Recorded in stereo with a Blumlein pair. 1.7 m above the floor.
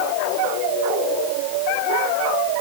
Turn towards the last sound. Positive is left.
No sound to turn to.